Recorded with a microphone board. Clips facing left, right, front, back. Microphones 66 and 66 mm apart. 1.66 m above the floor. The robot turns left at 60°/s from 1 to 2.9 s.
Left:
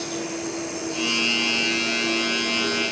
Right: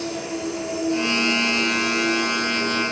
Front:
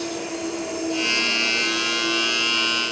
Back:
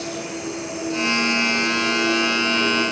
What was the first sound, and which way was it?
An insect, 35° right.